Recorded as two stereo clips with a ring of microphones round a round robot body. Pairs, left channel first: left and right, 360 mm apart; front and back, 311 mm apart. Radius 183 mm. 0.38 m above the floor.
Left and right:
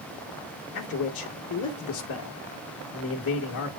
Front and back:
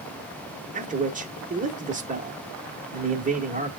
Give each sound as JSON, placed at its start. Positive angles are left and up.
{"t": 0.7, "sound": "a man speaking", "azimuth_deg": 125, "distance_m": 1.1}